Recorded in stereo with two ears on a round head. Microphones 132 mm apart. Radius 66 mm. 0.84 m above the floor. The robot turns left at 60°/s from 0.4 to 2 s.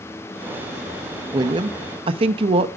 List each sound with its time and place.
1.3 s a woman speaking: 45° right, 0.6 m; by 2.7 s 85° right, 0.6 m